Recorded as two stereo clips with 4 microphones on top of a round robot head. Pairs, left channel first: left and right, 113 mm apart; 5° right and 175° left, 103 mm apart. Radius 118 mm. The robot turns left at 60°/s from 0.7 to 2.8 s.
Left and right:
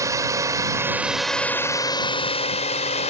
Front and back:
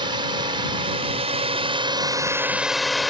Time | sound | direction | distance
0.0 | a drone | 150° right | ?